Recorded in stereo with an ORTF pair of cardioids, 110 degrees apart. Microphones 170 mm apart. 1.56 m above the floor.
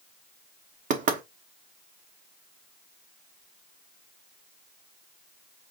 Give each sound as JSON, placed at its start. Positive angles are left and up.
{"t": 0.9, "sound": "knocking", "azimuth_deg": -55, "distance_m": 1.2}